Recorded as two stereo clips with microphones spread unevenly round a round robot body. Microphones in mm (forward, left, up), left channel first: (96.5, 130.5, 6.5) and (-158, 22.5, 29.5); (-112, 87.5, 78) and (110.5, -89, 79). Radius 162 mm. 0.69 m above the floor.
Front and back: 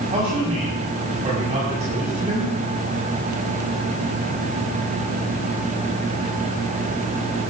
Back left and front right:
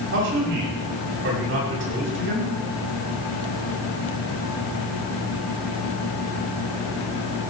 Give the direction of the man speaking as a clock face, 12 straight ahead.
3 o'clock.